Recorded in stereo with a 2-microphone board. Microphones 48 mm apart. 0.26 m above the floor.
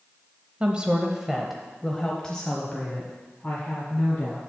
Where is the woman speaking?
20° right (ahead or behind), 1.0 m; by 4.4 s 30° left (ahead or behind), 2 m.